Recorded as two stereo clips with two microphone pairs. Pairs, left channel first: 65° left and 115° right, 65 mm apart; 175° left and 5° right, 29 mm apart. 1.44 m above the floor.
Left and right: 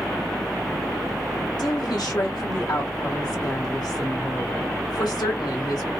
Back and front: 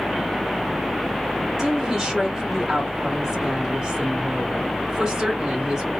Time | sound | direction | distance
1.6 | a woman speaking | 65° left | 1.8 m